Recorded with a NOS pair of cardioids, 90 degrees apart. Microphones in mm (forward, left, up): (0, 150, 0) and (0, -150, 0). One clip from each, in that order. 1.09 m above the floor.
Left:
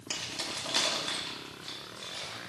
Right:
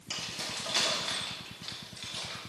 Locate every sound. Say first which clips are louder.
0.1 s keys jangling: left 1 dB; 30° left, 1.7 m; by 2.4 s 25° right, 2 m